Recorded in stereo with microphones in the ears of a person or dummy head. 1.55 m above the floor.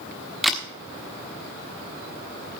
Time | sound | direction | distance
0.4 | a camera shutter | 5° right (ahead or behind) | 1.3 m